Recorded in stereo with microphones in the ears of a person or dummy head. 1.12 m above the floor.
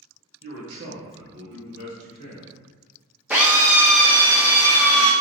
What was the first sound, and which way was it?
A man speaking, 40° right (ahead or behind).